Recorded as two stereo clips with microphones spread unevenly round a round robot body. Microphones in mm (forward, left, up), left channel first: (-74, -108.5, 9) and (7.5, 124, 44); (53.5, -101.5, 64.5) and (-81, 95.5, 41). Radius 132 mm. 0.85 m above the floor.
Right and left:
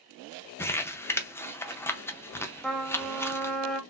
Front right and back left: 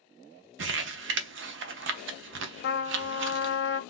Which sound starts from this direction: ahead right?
A trumpet, at 2.6 s.